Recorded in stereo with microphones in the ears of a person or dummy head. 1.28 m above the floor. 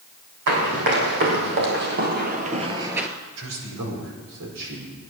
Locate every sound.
0.5 s running footsteps: 65° right (ahead or behind), 4.5 m; by 3.1 s 5° right (ahead or behind), 1.2 m
3.4 s a man speaking: 85° right, 5 m